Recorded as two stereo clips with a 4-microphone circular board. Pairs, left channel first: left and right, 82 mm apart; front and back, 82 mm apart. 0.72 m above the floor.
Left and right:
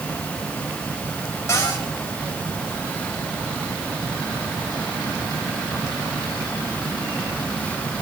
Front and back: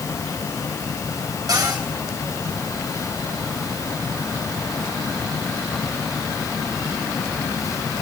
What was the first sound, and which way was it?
A cupboard door, 145° left.